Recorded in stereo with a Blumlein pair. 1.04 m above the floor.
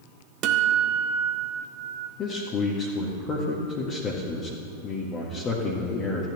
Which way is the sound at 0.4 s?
35° right.